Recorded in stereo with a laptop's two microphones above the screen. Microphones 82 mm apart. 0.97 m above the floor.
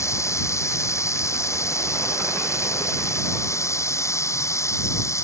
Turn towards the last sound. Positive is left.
turn(degrees=35)  # may be behind; listen again after turning